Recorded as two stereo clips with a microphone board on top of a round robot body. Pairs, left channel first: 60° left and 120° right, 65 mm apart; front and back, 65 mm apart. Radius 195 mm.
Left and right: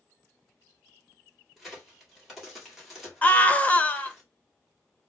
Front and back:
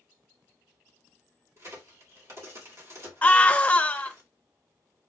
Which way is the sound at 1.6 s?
155° left.